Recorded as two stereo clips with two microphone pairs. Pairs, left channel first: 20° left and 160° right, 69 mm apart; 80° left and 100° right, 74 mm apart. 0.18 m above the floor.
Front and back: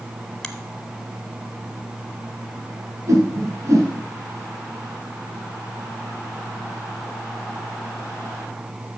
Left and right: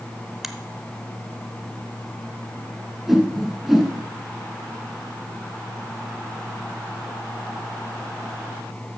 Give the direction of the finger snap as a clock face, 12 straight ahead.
1 o'clock.